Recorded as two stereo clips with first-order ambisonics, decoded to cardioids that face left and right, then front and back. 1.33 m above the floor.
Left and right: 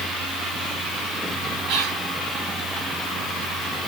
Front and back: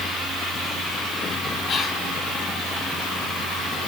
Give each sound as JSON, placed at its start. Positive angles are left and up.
{"t": 1.7, "sound": "whispering", "azimuth_deg": -60, "distance_m": 2.5}